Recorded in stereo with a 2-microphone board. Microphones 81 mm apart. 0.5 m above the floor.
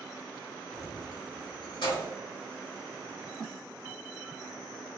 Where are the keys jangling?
45° left (ahead or behind), 0.7 m; by 2.1 s 70° left (ahead or behind), 1.3 m.